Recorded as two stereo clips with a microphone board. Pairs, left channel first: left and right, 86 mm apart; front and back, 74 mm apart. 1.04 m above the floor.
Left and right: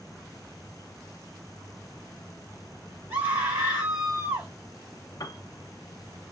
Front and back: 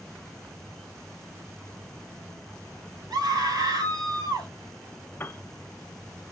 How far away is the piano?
About 0.5 m.